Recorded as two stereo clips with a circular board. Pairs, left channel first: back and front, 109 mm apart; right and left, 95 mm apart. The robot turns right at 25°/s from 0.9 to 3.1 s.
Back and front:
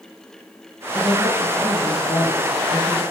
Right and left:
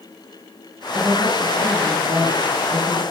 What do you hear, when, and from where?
0.9 s a woman speaking: 115° left, 3 m; by 3.0 s 165° left, 3 m